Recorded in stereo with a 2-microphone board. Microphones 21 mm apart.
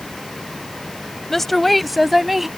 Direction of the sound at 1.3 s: 15° left (ahead or behind).